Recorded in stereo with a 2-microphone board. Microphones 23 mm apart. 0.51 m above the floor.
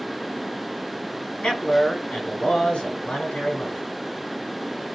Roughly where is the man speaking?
Left.